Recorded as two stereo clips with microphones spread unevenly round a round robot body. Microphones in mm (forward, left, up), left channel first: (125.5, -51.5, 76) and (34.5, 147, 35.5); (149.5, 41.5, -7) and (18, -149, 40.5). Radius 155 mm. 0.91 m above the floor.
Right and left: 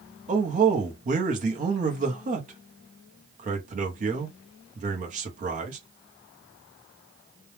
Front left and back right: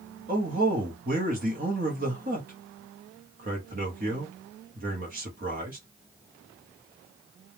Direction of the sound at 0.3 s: 170° left.